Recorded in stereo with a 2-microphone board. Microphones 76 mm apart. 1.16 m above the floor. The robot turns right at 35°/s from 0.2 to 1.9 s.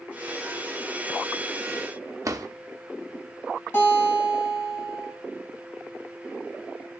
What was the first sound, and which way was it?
A drawer, 45° right (ahead or behind).